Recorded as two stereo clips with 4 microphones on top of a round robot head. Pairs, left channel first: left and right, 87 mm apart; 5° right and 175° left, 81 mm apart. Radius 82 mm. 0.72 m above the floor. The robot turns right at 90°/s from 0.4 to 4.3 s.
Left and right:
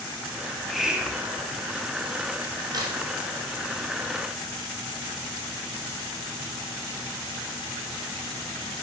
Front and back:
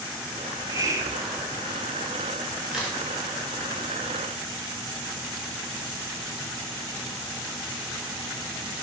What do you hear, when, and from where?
0.5 s a hiss: 160° left, 0.9 m; by 1.6 s 105° right, 0.9 m
2.7 s a crack: 105° right, 1.5 m; by 3.0 s 80° right, 1.5 m